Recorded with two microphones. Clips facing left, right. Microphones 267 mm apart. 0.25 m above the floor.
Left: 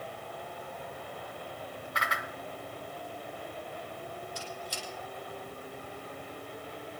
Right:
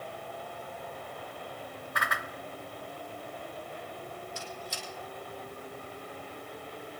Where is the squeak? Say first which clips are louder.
Even; 40° left (ahead or behind), 4.5 m.